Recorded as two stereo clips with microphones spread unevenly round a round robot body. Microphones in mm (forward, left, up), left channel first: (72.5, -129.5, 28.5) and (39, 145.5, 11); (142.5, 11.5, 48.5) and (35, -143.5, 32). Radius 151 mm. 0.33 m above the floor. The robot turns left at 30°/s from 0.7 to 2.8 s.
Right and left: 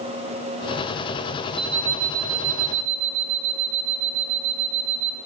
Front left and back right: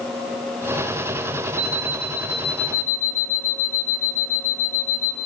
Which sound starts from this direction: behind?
An alarm clock, at 1.6 s.